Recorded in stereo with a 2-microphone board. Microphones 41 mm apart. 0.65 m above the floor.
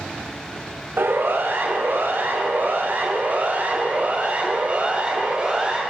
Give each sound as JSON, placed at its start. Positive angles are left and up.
{"t": 1.0, "sound": "a siren", "side_deg": -75, "distance_m": 4.5}